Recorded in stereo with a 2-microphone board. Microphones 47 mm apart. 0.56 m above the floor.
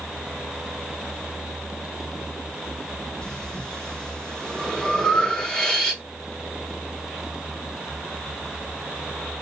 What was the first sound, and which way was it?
Breathing, 20° left (ahead or behind).